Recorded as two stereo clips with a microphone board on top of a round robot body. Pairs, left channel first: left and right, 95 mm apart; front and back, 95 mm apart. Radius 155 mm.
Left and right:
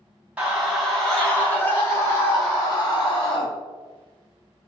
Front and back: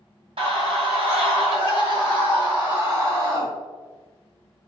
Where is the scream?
170° right, 1.2 m; by 3.5 s 135° left, 2 m.